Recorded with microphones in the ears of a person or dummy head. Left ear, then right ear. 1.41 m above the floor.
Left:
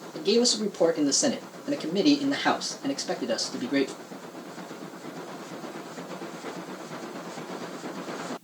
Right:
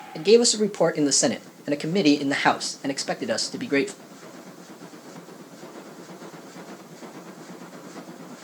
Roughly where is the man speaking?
Right.